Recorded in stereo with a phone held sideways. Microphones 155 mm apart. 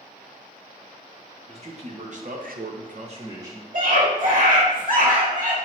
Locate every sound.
1.5 s a man speaking: 40° right (ahead or behind), 1.5 m; by 3.6 s 15° right (ahead or behind), 0.9 m
3.7 s a scream: 55° right (ahead or behind), 1.6 m